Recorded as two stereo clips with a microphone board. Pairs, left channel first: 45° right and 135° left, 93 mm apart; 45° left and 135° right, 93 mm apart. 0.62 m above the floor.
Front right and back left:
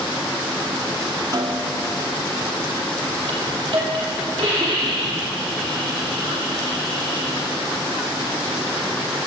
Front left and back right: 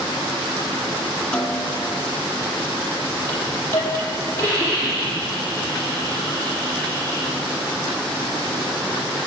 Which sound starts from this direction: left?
A hiss, at 3.3 s.